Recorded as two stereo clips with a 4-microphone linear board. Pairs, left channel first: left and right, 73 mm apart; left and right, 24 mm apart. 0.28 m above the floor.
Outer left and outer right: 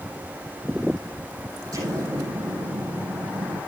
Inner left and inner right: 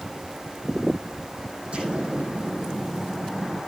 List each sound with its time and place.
1.7 s an explosion: 55° right (ahead or behind), 7 m